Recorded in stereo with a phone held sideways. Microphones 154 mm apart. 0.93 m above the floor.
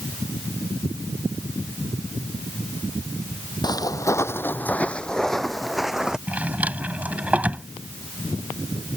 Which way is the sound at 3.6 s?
25° left (ahead or behind).